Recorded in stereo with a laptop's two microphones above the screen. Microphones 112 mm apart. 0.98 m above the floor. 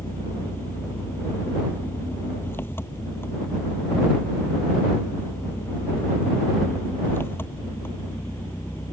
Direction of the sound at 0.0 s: 20° left (ahead or behind).